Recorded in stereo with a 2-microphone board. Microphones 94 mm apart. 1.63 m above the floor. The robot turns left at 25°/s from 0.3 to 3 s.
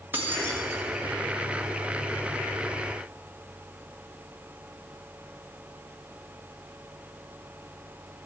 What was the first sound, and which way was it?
Keys jangling, 25° right (ahead or behind).